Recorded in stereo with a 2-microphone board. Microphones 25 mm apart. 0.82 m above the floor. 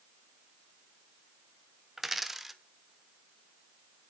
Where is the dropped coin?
5° right (ahead or behind), 0.9 m.